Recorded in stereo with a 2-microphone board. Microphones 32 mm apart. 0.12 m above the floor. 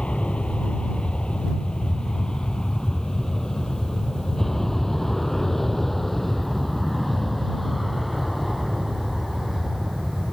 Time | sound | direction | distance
0.0 | an aircraft | 35° left (ahead or behind) | ?